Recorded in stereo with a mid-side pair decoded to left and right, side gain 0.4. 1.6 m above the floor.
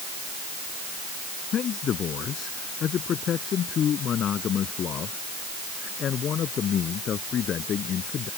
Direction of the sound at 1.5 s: 65° left.